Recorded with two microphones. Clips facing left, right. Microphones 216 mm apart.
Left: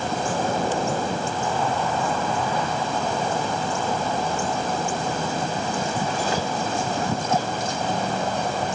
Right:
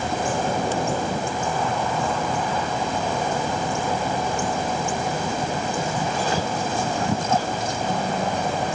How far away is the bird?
No bird in this recording.